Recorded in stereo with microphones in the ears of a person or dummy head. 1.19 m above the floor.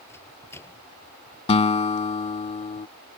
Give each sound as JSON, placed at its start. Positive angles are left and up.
{"t": 0.1, "sound": "a microwave", "side_deg": 15}
{"t": 1.5, "sound": "a guitar", "side_deg": 30}